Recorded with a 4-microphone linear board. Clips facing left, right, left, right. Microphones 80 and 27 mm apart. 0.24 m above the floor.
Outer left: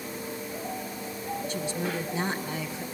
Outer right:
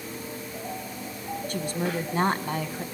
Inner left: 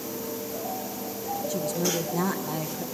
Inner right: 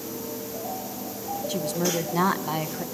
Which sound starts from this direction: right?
A woman speaking, at 1.5 s.